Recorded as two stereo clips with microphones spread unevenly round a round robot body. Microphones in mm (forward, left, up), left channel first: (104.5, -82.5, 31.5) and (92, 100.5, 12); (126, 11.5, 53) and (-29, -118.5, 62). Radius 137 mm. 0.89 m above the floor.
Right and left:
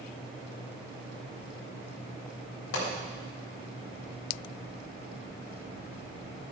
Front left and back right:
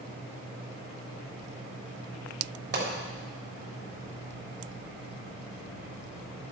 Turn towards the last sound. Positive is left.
turn(degrees=-105)